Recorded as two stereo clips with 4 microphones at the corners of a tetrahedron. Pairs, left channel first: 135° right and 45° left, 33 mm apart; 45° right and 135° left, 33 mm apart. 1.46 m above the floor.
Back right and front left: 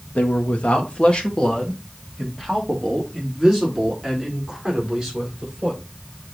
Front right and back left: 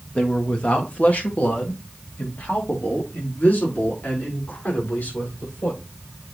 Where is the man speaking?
95° right, 1.9 m; by 5.8 s 35° right, 5 m.